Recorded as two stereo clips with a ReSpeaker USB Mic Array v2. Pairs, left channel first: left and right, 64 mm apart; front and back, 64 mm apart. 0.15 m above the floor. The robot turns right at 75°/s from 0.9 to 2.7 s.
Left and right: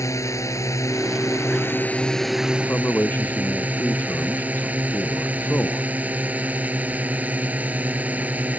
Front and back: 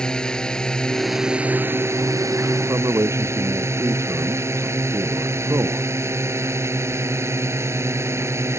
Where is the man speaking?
145° left.